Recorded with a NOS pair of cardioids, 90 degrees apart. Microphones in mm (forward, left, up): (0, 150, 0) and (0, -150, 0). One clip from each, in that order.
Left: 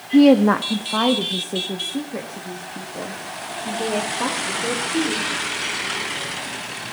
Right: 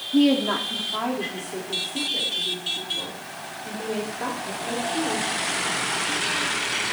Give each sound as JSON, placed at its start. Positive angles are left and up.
{"t": 0.1, "sound": "a woman speaking", "azimuth_deg": 35, "distance_m": 0.5}